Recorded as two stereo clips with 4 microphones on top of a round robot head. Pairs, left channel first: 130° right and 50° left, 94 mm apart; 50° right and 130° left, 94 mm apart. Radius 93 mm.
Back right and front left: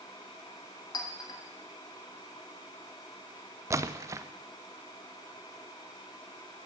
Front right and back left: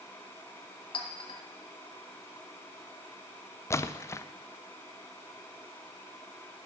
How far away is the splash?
About 0.6 m.